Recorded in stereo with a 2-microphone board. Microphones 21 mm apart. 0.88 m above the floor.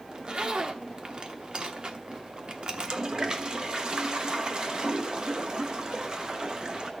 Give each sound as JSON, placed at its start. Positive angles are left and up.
{"t": 0.1, "sound": "a zipper", "side_deg": -45, "distance_m": 1.0}
{"t": 2.7, "sound": "a toilet flushing", "side_deg": -40, "distance_m": 1.0}